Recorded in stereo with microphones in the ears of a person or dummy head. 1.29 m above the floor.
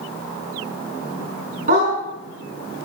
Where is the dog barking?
50° right (ahead or behind), 6 m.